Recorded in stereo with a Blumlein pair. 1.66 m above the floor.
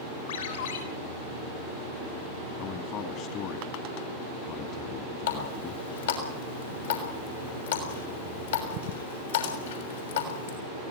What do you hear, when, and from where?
0.3 s a ringtone: 65° left, 7 m
2.6 s a man speaking: 35° left, 2.5 m
5.3 s a running tap: 65° left, 6 m